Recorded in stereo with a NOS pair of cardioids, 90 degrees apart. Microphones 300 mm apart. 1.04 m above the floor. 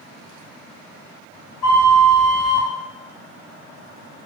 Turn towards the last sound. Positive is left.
turn(degrees=10)